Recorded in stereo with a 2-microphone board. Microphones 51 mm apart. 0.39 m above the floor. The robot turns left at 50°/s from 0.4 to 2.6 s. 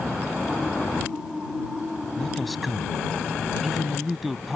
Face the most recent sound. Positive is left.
turn(degrees=0)  # may be behind; listen again after turning